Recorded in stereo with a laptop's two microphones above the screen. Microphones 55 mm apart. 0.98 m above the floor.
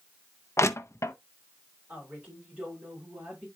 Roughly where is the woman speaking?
Right.